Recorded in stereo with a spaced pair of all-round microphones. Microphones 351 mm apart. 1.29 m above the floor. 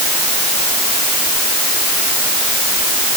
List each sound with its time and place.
Only background noise.